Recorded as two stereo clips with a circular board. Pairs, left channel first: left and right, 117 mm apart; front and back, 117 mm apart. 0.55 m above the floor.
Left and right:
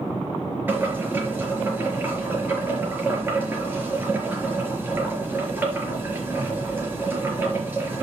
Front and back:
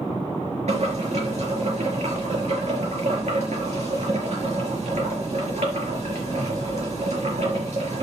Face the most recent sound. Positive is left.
turn(degrees=-165)